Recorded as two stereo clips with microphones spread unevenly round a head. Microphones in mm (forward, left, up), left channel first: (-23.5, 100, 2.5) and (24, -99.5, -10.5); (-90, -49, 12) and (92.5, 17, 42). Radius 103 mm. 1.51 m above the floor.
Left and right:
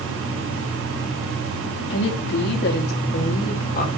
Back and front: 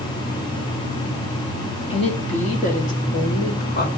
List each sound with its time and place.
1.9 s a woman speaking: 135° left, 2.5 m; by 3.9 s 155° left, 3.5 m